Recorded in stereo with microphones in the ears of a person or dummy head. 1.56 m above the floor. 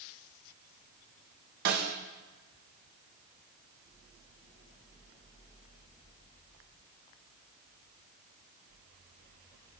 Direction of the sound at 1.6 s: 50° right (ahead or behind).